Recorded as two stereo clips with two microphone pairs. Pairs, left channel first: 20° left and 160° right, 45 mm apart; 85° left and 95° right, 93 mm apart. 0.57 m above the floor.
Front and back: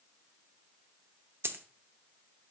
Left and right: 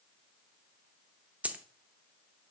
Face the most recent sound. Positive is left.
turn(degrees=-170)